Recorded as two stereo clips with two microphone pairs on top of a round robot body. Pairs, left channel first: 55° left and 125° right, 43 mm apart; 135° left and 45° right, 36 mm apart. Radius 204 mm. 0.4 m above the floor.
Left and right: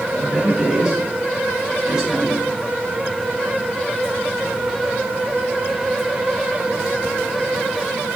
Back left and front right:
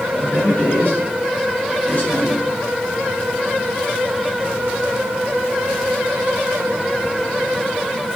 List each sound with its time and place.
0.1 s a man speaking: 170° left, 6 m; by 2.4 s 175° left, 7.5 m